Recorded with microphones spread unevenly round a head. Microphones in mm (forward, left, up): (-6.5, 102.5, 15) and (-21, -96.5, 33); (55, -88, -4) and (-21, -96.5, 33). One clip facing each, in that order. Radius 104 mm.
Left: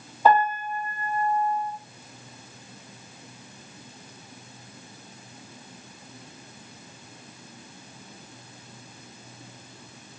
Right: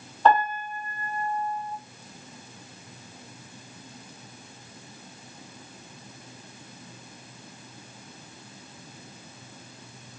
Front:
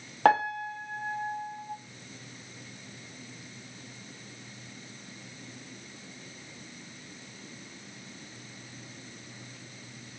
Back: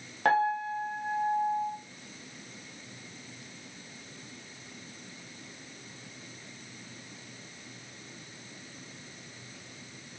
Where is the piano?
Straight ahead, 0.8 m.